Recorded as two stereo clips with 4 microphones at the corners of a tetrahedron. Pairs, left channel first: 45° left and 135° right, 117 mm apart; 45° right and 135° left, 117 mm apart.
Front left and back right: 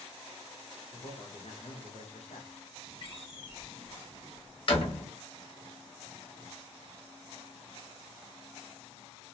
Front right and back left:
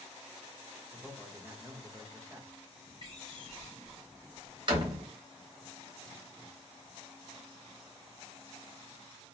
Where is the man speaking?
70° left, 0.8 m.